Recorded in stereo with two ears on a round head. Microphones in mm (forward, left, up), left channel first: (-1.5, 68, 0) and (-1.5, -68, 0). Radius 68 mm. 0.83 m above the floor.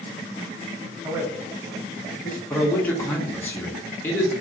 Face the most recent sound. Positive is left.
turn(degrees=10)  # may be behind; listen again after turning